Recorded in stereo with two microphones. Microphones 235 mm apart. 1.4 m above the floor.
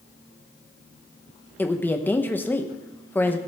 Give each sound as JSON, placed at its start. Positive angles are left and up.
{"t": 1.6, "sound": "a woman speaking", "side_deg": 10, "distance_m": 0.9}